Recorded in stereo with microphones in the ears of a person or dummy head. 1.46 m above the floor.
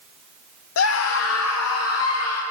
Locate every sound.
0.8 s a scream: 75° left (ahead or behind), 0.9 m; by 2.4 s 85° left, 3 m